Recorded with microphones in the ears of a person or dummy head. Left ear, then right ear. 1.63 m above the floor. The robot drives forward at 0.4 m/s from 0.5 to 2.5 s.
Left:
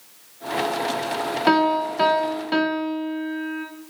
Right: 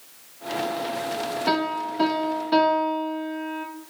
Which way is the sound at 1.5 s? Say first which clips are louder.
Left 7 dB; 35° left (ahead or behind).